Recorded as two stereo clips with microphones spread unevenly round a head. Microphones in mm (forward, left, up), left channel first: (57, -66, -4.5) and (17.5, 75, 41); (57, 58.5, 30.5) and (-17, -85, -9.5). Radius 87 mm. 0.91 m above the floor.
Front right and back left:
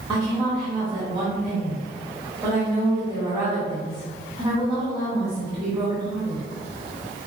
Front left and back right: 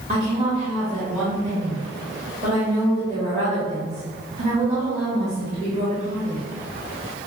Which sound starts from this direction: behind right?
A woman speaking, at 0.1 s.